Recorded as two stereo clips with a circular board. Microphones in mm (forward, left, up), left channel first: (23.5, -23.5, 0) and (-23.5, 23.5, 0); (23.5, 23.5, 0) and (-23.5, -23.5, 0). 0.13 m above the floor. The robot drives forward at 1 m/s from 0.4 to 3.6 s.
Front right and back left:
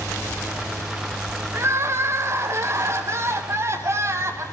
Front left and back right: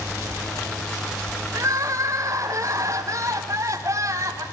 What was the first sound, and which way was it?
Crying, straight behind.